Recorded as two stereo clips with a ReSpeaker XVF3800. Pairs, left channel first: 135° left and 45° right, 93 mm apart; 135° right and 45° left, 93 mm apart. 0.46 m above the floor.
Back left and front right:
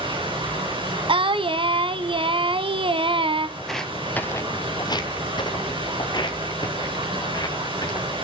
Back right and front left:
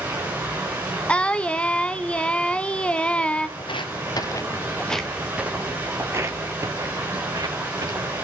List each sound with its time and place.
0.0 s running water: 20° right, 8 m
1.1 s singing: 55° right, 0.7 m
3.6 s footsteps: 135° right, 0.9 m; by 8.1 s 90° left, 2.5 m